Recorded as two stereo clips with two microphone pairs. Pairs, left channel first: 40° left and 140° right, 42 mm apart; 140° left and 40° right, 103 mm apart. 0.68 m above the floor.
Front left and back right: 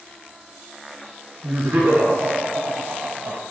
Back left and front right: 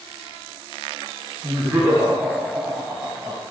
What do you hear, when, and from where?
1.4 s laughter: 110° right, 4 m; by 3.4 s 100° right, 3 m